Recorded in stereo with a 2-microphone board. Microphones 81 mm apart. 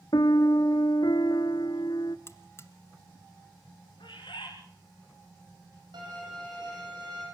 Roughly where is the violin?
Right.